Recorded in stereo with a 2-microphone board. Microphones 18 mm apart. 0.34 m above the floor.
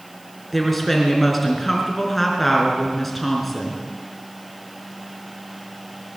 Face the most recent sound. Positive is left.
turn(degrees=5)  # may be behind; listen again after turning